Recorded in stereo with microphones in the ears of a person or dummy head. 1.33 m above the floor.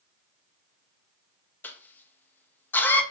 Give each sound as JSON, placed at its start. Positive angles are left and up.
{"t": 1.6, "sound": "a cough", "side_deg": 10, "distance_m": 0.7}